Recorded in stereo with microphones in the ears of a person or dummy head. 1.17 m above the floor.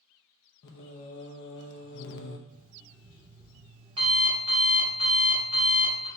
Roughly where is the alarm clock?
Right.